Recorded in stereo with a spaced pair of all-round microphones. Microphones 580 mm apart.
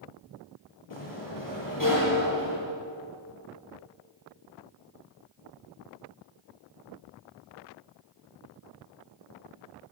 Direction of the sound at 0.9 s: 35° left (ahead or behind).